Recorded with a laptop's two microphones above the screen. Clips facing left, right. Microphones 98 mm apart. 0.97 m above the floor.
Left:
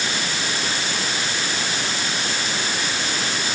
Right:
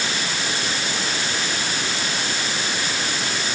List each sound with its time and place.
Only background noise.